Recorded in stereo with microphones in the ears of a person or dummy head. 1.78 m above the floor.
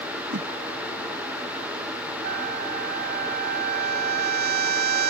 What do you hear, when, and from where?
0.3 s a whoosh: 45° right (ahead or behind)
2.2 s a trumpet: 45° right (ahead or behind)